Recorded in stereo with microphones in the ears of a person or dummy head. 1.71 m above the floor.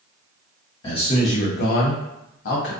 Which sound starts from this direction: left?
A man speaking, at 0.8 s.